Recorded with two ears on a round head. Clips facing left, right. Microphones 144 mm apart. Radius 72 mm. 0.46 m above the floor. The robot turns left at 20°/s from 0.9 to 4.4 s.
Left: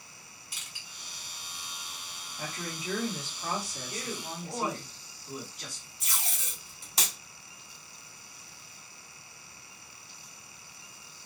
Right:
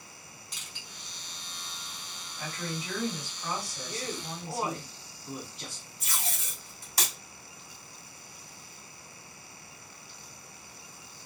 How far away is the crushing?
About 1.0 m.